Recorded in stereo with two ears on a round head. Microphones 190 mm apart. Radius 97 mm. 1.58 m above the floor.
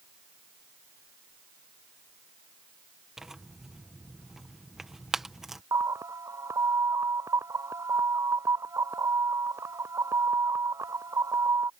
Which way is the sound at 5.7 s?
15° right (ahead or behind).